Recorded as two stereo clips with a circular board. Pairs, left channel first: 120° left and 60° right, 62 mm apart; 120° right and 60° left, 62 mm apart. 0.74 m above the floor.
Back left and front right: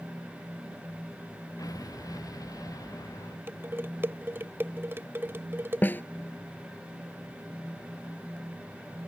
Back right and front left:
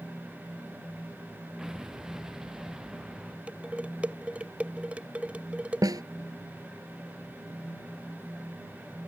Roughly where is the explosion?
Behind left.